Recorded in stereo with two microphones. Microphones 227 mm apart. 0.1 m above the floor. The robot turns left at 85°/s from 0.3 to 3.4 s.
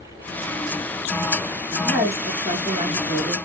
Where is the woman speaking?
Centre (ahead or behind), 1.1 m; by 3.4 s 15° right (ahead or behind), 1.1 m.